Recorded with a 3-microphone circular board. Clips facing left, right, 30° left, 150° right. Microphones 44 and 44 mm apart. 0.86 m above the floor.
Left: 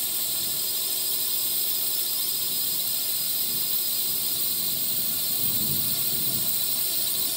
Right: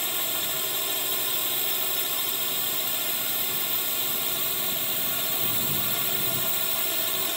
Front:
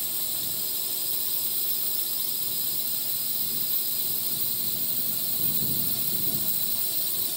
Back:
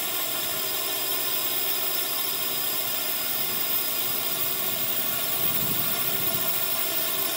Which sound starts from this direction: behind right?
A drone, at 0.0 s.